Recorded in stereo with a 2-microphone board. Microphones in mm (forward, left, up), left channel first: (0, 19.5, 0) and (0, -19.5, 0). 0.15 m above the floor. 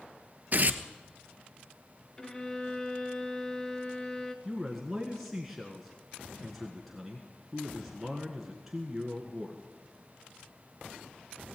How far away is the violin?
About 1.3 m.